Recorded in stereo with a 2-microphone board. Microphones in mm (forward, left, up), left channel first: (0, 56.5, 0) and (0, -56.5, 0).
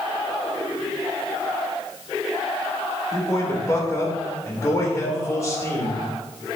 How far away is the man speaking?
About 3 m.